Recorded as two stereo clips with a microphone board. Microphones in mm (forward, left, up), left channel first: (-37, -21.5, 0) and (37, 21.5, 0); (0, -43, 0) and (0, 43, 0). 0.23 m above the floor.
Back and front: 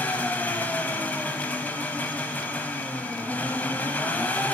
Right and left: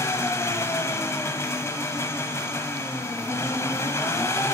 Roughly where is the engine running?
Right.